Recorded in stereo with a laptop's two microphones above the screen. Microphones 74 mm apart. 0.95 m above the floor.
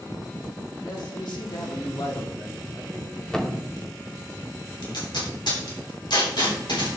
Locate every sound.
0.8 s a man speaking: 70° left (ahead or behind), 2.5 m; by 3.2 s 35° left (ahead or behind), 3.5 m
3.3 s a thud: 10° left (ahead or behind), 0.8 m
4.8 s tape being pulled: 80° left, 3 m